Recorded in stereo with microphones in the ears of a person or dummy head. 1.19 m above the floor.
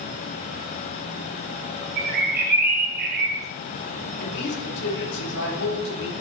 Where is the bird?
50° right (ahead or behind), 1.1 m.